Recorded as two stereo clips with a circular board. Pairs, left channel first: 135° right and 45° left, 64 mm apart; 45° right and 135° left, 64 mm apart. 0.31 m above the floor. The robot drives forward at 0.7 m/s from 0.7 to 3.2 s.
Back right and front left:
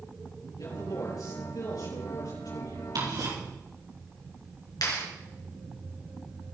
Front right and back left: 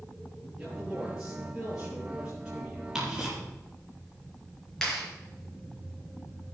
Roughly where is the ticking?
Ahead left.